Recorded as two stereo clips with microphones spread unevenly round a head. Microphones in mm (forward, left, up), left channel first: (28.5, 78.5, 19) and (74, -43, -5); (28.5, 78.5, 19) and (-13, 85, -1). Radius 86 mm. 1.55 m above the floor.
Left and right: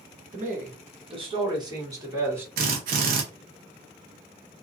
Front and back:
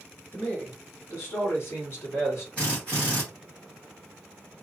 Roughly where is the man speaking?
Ahead right.